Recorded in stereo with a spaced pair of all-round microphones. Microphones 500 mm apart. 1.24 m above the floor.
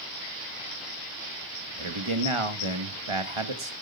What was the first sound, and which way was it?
A man speaking, 70° right (ahead or behind).